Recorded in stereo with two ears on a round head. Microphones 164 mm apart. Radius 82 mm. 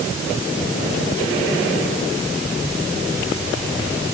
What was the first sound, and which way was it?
Only background noise.